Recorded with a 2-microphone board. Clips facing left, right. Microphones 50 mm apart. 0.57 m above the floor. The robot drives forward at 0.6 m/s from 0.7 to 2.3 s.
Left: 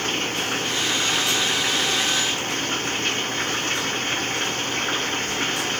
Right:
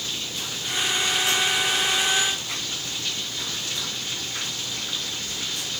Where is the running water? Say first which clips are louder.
Left 8 dB; 50° left (ahead or behind); by 5.8 s 45° left (ahead or behind).